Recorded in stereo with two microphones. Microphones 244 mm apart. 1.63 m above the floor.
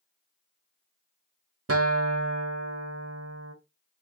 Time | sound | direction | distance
1.7 | a guitar | 70° right (ahead or behind) | 0.6 m